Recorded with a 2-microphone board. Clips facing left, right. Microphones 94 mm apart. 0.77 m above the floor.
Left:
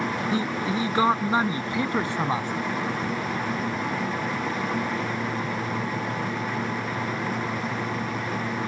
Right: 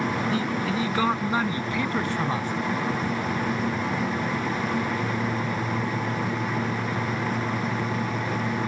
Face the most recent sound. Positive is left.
turn(degrees=15)  # may be behind; listen again after turning